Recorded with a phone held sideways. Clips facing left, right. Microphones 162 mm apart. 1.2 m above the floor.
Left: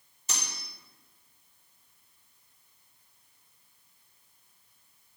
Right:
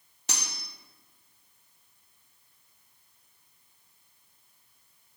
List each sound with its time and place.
0.3 s cutlery clinking: 70° right (ahead or behind), 1.6 m